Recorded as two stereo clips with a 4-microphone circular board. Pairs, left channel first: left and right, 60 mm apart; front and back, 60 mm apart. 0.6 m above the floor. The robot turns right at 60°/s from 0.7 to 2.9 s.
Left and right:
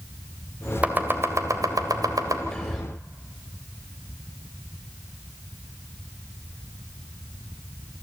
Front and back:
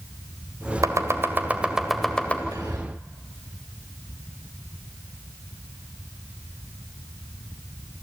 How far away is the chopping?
About 1.8 m.